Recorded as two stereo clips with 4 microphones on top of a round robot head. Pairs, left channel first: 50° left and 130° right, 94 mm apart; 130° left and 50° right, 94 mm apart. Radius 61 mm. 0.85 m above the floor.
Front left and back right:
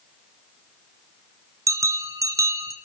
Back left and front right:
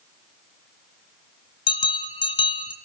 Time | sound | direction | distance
1.7 | a bell | 170° left | 1.9 m